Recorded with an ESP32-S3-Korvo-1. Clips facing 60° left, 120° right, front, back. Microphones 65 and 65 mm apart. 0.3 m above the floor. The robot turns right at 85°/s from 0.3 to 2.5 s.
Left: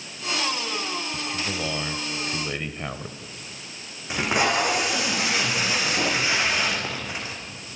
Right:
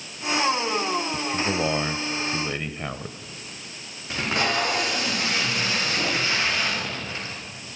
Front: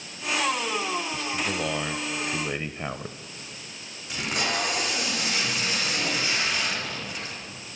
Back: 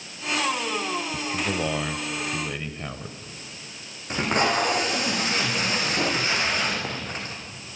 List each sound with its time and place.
1.1 s a man speaking: 150° right, 0.9 m; by 3.2 s 35° right, 0.9 m
4.1 s tape being pulled: 130° left, 6 m